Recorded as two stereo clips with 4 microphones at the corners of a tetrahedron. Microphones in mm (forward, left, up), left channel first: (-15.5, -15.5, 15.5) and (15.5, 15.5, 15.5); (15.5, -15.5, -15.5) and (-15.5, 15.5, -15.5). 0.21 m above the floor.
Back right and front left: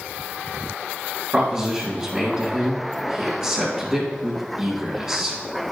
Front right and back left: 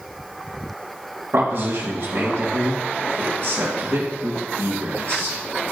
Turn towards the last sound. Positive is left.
turn(degrees=110)